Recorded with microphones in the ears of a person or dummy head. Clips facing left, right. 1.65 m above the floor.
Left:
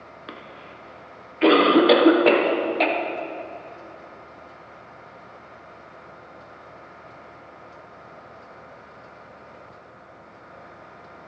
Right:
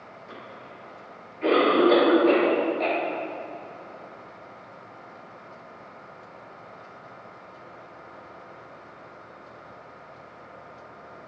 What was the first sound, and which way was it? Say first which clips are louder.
A cough: left 2 dB; 90° left.